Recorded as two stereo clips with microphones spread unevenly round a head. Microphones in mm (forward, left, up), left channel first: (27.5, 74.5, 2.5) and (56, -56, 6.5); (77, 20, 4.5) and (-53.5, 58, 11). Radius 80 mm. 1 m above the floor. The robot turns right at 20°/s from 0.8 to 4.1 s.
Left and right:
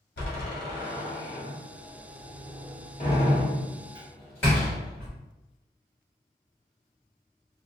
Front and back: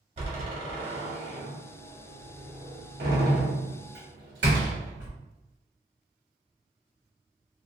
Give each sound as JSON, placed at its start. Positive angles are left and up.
{"t": 0.2, "sound": "a door slam", "azimuth_deg": 115, "distance_m": 1.2}